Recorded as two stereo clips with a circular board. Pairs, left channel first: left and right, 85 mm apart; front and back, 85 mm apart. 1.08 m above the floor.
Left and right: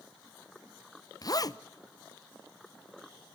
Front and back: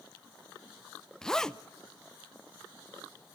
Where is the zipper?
80° left, 0.6 m.